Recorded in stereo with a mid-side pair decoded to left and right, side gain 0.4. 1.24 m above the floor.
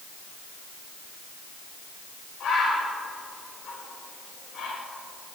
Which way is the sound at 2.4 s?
60° left.